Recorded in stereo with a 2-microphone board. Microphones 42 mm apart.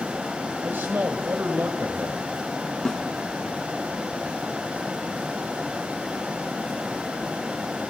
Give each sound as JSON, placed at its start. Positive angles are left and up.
{"t": 0.6, "sound": "a man speaking", "side_deg": -65, "distance_m": 2.5}
{"t": 2.9, "sound": "a snare drum", "side_deg": 15, "distance_m": 2.0}